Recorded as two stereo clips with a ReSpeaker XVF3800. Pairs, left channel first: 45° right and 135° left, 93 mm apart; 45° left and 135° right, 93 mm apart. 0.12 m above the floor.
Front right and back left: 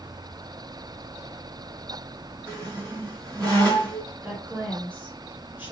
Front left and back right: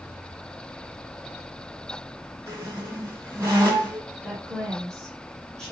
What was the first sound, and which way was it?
A squeak, 175° left.